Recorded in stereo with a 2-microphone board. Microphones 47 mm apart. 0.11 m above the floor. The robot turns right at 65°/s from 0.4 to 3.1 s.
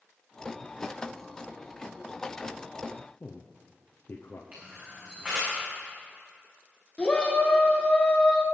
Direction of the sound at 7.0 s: 25° left (ahead or behind).